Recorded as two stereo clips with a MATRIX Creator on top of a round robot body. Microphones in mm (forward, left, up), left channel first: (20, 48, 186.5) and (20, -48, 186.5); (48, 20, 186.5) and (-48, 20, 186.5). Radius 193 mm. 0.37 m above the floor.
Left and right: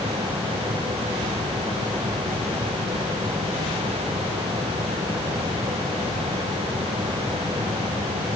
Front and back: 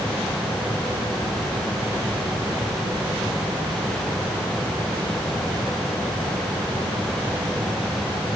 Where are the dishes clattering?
I don't hear dishes clattering.